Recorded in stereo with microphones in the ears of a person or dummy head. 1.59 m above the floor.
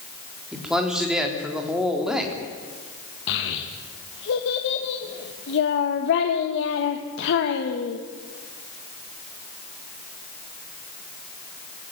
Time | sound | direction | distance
0.5 | a man speaking | 5° right (ahead or behind) | 3.5 m
3.3 | a child speaking | 65° left (ahead or behind) | 1.8 m